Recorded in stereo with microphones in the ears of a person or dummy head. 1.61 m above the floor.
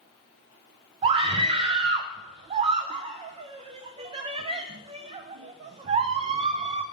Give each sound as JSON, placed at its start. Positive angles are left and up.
{"t": 1.0, "sound": "a scream", "side_deg": -40, "distance_m": 0.5}